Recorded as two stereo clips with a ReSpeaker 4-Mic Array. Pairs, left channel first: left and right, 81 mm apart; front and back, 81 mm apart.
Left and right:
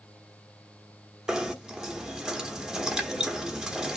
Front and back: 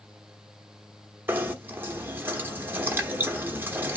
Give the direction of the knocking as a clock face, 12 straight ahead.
5 o'clock.